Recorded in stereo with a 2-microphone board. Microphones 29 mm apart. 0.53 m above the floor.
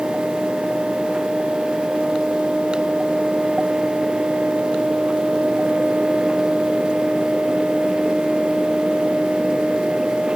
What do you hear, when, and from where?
Only background noise.